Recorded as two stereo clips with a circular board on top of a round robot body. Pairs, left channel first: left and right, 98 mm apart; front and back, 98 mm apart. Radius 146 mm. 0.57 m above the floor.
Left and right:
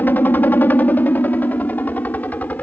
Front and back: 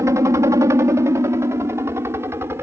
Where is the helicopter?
150° left.